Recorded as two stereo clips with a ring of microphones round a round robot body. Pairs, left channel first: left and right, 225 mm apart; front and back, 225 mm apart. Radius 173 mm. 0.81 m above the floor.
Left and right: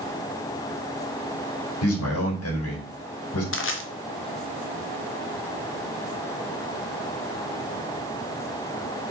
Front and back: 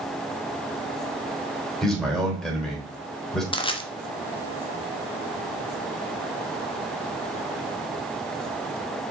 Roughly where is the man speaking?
Left.